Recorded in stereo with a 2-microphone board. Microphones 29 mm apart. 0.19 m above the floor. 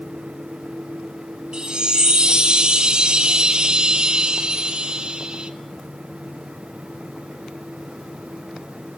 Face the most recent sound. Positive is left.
turn(degrees=-35)  # may be behind; listen again after turning